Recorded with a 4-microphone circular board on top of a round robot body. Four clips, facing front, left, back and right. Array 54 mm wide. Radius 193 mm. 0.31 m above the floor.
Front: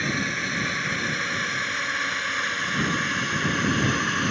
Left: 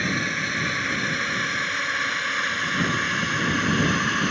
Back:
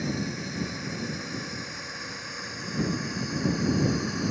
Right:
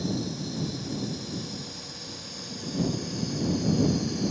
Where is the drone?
50° left.